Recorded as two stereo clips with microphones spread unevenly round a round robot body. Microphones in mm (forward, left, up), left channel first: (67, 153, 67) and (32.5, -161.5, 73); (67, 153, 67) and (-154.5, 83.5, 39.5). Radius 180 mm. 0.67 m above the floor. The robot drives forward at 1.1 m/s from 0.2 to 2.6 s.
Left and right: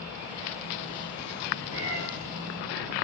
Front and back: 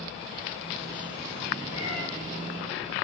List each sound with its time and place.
1.7 s a cat meowing: 110° right, 6 m